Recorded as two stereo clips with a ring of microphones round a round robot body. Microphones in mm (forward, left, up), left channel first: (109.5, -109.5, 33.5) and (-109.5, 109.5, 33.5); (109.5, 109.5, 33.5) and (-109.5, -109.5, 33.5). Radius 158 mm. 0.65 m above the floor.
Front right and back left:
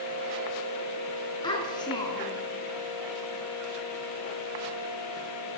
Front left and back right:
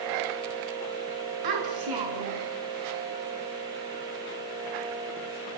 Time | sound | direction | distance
1.4 | a child speaking | 120° right | 6.5 m